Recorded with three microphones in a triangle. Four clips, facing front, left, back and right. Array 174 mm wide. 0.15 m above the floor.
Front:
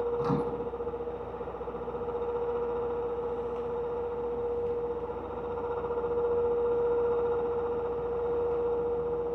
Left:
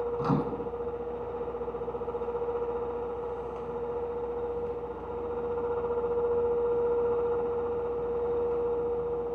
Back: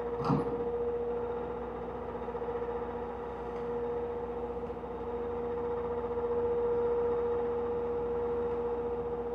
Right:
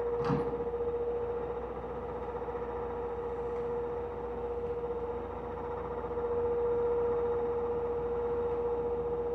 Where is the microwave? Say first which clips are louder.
Left 2 dB, front 1 dB; 100° left, 0.9 m.